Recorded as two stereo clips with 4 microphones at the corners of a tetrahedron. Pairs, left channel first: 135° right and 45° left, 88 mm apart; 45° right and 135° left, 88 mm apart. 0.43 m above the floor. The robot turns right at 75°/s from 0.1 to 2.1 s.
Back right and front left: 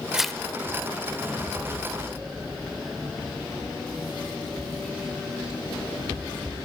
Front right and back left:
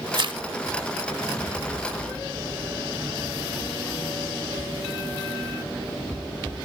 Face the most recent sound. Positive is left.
turn(degrees=-85)